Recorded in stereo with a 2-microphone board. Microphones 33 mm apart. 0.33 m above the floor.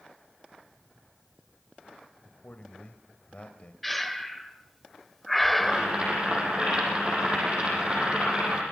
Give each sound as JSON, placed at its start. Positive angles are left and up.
{"t": 2.2, "sound": "a man speaking", "side_deg": 45, "distance_m": 1.6}
{"t": 3.8, "sound": "breathing", "side_deg": 5, "distance_m": 1.2}
{"t": 5.6, "sound": "boiling", "side_deg": -30, "distance_m": 8.0}